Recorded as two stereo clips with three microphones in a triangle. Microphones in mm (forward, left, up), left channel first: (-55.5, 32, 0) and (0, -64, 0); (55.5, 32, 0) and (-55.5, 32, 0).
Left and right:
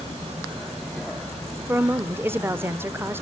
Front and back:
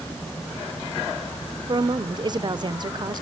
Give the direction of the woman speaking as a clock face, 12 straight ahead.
4 o'clock.